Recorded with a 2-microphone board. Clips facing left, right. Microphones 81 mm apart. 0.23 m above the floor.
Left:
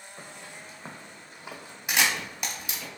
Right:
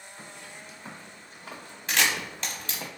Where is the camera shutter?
15° left (ahead or behind), 0.6 m.